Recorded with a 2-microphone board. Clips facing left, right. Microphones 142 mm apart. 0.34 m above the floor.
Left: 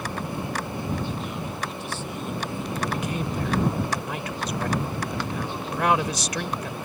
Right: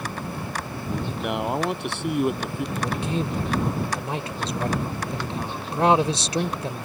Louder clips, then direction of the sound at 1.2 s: Right 7 dB; 70° right (ahead or behind).